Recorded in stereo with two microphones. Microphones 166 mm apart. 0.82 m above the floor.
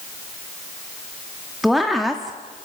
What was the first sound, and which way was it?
A woman speaking, centre (ahead or behind).